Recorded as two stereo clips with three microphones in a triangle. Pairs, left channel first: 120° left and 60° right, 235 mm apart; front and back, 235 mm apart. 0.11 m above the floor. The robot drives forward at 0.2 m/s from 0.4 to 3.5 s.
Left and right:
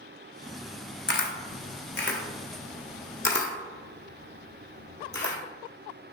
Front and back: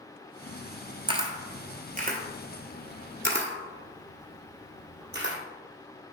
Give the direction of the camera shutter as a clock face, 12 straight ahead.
8 o'clock.